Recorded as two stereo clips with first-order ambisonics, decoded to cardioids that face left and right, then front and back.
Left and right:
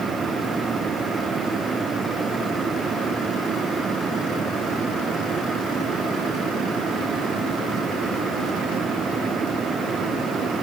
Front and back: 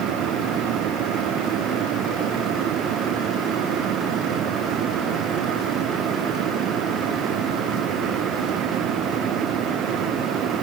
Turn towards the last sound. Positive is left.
No sound to turn to.